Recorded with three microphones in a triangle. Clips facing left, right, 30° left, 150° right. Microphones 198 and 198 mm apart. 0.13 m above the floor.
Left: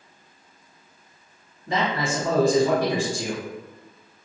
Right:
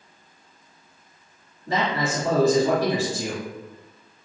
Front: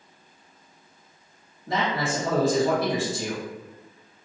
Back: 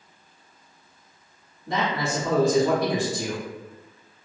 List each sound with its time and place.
1.7 s a man speaking: 60° right, 2.0 m